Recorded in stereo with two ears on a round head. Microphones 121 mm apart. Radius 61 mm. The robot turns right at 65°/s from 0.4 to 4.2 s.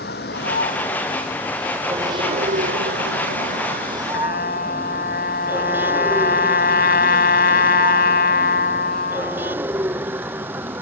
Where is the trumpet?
75° left (ahead or behind); by 9.6 s 70° left (ahead or behind).